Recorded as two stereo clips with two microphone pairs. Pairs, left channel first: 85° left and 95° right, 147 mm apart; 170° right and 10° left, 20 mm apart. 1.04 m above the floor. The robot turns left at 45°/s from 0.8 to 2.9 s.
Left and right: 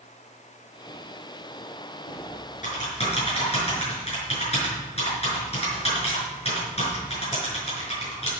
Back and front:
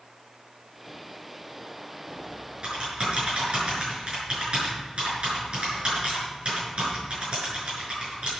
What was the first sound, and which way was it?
Typing on a keyboard, 75° left.